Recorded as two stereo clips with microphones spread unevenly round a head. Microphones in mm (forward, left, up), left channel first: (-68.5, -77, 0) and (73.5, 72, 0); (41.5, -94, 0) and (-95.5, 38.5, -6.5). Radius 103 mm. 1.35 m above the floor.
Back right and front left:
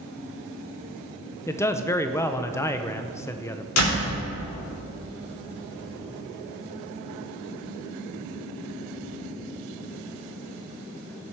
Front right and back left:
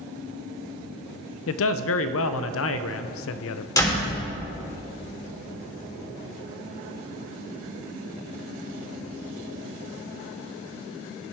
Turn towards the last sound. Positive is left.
turn(degrees=-115)